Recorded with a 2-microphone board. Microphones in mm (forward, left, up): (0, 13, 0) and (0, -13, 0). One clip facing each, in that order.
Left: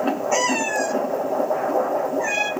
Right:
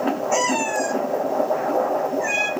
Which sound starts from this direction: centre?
A cat meowing, at 0.3 s.